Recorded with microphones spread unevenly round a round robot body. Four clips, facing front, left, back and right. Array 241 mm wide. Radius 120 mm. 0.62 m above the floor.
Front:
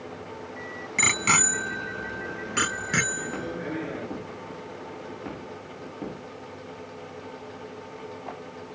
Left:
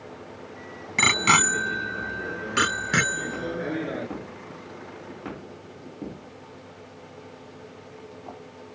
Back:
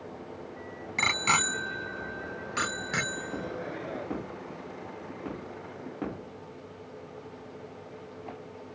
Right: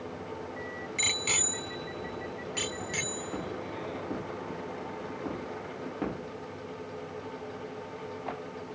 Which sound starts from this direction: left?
A bicycle bell, at 1.0 s.